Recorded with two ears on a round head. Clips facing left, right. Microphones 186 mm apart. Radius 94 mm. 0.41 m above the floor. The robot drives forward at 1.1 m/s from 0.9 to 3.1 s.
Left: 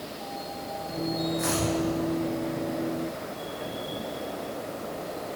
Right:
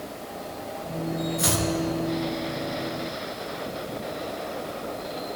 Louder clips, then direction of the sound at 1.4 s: Right 1 dB; 50° right (ahead or behind).